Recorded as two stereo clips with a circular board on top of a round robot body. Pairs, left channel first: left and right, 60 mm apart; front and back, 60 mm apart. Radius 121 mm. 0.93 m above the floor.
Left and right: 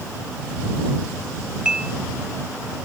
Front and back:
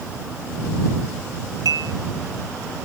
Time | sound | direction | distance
1.6 | dishes clattering | 165° right | ?